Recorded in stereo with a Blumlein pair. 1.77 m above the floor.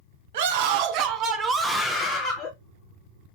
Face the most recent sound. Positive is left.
turn(degrees=35)